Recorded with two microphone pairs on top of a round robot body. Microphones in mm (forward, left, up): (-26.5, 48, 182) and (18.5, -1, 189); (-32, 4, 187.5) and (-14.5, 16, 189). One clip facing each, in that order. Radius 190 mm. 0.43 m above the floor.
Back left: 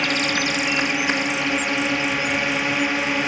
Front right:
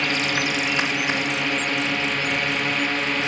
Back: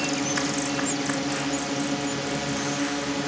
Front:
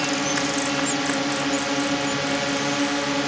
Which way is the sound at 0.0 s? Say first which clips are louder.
Back left 1 dB, front 3 dB; 75° left.